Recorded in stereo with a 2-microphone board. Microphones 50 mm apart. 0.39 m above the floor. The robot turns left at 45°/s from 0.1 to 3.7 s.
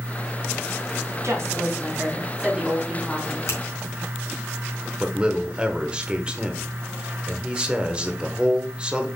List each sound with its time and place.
1.2 s a woman speaking: 100° right, 3.5 m; by 3.4 s 165° left, 3.5 m
3.5 s a finger snap: 70° left (ahead or behind), 4 m; by 3.6 s 65° left (ahead or behind), 4 m
5.0 s a man speaking: 20° right (ahead or behind), 1.0 m